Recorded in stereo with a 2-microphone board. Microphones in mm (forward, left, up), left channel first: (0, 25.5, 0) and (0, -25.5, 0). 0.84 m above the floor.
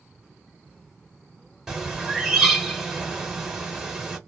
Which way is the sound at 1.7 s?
10° right (ahead or behind).